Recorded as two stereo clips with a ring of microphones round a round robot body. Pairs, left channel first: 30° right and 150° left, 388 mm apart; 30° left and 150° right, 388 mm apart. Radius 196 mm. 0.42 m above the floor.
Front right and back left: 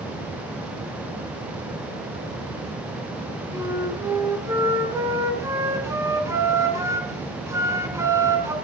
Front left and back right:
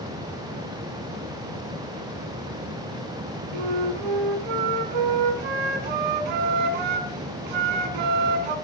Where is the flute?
125° right, 2.0 m.